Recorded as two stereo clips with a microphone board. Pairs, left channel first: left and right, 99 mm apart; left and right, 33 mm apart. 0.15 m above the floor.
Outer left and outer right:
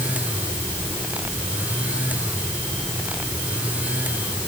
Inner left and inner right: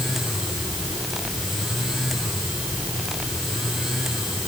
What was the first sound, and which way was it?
Only background noise.